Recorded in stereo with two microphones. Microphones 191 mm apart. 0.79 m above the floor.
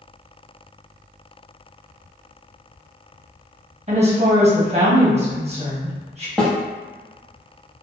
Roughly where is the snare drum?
Centre.